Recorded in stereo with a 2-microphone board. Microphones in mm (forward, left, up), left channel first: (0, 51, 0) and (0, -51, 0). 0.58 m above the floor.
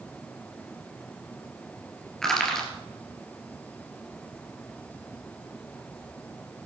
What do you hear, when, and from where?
2.2 s crushing: 5° left (ahead or behind), 3.5 m